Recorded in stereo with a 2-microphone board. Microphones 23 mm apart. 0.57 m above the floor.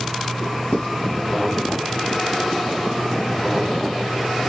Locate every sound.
0.7 s writing: 55° left (ahead or behind), 2.5 m